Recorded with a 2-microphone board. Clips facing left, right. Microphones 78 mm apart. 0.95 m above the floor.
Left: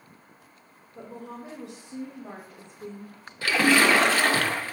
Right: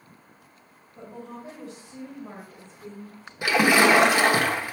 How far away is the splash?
About 1.0 m.